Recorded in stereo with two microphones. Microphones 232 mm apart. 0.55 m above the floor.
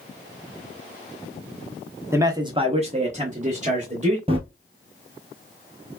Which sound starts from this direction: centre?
A man speaking, at 2.1 s.